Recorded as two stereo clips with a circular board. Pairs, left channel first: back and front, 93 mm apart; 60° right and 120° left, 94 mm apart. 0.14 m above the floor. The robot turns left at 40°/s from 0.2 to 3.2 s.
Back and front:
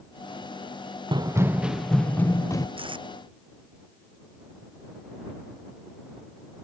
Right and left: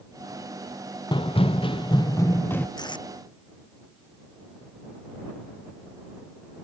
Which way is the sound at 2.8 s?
20° right.